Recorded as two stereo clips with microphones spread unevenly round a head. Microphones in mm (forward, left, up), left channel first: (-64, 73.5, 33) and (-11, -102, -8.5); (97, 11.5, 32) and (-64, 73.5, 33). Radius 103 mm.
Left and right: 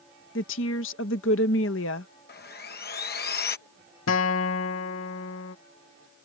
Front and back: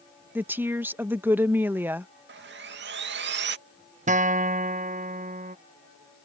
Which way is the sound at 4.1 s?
110° left.